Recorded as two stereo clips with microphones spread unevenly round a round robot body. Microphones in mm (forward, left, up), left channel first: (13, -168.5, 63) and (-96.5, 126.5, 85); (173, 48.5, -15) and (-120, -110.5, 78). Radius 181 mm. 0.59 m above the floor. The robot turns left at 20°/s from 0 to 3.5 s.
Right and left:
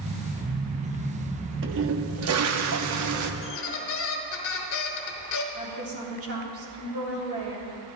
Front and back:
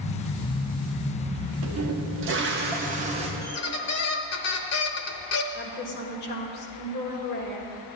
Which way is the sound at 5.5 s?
70° left.